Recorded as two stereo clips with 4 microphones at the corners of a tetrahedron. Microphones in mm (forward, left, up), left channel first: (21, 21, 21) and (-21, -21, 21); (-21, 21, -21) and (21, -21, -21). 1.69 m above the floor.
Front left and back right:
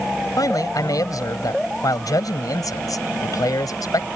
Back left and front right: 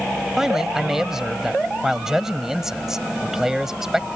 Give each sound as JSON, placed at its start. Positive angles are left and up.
{"t": 0.4, "sound": "a man speaking", "azimuth_deg": 35}